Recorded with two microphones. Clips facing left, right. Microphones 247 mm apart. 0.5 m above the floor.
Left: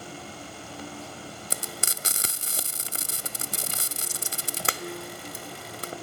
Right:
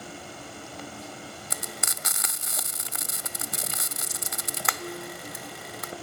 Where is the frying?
35° left (ahead or behind), 0.6 m.